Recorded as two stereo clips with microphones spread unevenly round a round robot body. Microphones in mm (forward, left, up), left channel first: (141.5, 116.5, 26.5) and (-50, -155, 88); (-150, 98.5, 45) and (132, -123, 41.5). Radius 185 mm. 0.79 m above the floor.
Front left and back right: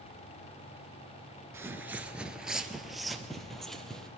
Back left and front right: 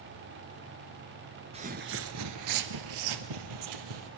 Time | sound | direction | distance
1.5 | footsteps | 85° right | 0.8 m